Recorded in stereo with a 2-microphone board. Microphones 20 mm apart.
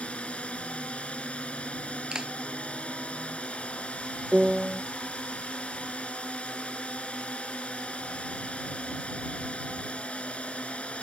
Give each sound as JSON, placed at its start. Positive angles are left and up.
{"t": 0.0, "sound": "a drone", "side_deg": 80}
{"t": 2.1, "sound": "a clap", "side_deg": -35}
{"t": 4.3, "sound": "a piano", "side_deg": -40}